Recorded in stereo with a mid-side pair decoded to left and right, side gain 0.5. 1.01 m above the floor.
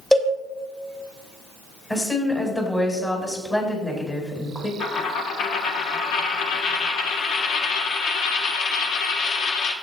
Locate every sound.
0.1 s a cowbell: 15° left, 2.5 m
1.9 s a woman speaking: 20° left, 5 m
4.8 s a dropped coin: 70° left, 1.4 m